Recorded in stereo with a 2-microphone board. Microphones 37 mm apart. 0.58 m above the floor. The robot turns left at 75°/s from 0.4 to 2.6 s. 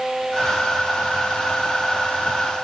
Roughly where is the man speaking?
I don't hear a man speaking.